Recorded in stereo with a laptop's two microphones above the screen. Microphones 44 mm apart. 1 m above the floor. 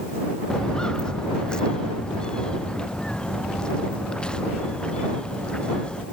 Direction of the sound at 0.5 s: 15° left (ahead or behind).